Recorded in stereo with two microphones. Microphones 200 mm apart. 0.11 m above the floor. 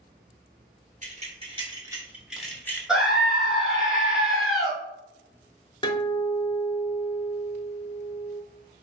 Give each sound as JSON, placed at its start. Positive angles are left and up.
{"t": 1.0, "sound": "keys jangling", "side_deg": -40, "distance_m": 1.3}
{"t": 2.9, "sound": "a scream", "side_deg": -5, "distance_m": 1.2}
{"t": 5.8, "sound": "a guitar", "side_deg": 25, "distance_m": 0.6}